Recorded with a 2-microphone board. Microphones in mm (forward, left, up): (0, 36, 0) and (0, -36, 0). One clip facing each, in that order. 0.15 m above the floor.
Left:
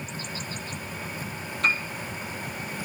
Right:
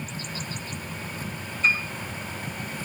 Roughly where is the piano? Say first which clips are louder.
Right 1 dB; left.